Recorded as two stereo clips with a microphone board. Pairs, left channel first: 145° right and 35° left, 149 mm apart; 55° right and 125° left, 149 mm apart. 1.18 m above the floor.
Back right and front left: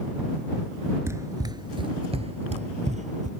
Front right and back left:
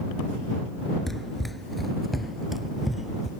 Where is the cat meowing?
I don't hear a cat meowing.